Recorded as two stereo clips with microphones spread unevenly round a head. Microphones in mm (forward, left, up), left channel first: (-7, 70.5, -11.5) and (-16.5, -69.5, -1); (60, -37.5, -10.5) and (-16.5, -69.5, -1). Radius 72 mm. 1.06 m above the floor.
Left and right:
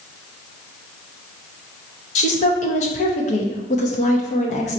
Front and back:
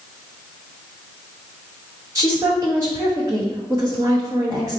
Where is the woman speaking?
130° left, 0.9 m.